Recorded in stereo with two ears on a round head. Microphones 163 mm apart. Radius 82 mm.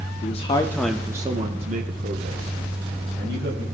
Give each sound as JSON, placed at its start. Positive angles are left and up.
{"t": 0.2, "sound": "a man speaking", "side_deg": 40, "distance_m": 0.8}